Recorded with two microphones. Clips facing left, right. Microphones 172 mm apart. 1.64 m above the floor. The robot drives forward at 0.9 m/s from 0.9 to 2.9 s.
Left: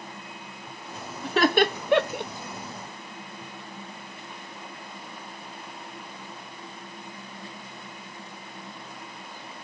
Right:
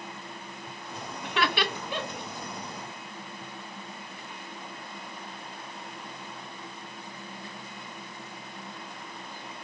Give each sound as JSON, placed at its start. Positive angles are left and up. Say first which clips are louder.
{"t": 1.2, "sound": "laughter", "louder": "left 8 dB", "side_deg": 35, "distance_m": 1.0}